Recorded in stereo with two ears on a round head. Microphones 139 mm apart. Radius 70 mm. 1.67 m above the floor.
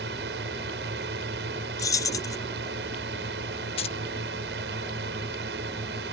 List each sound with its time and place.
0.0 s a drone: 80° right
1.8 s keys jangling: 20° left (ahead or behind)
3.8 s keys jangling: 40° left (ahead or behind)